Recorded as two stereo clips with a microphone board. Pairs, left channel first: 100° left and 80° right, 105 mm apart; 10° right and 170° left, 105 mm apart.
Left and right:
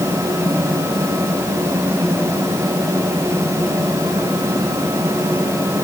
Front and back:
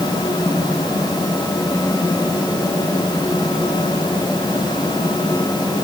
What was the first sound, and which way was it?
Only background noise.